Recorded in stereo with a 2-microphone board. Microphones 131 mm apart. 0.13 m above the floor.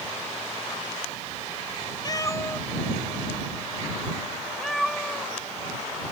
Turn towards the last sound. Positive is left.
turn(degrees=0)  # may be behind; listen again after turning